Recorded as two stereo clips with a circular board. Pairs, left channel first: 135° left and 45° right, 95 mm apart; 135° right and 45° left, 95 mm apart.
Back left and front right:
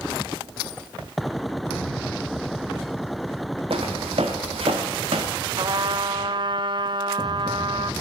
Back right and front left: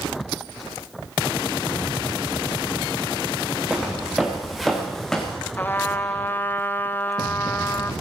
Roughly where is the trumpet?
Right.